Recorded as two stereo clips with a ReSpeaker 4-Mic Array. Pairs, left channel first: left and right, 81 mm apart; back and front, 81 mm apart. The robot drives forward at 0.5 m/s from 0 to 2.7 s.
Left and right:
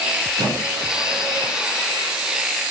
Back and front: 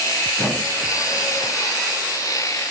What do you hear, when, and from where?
0.4 s a squeak: 120° right, 1.3 m; by 1.5 s 140° right, 1.7 m